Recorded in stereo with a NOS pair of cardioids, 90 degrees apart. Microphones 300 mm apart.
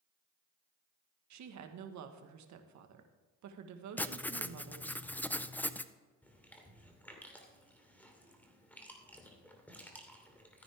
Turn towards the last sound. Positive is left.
turn(degrees=5)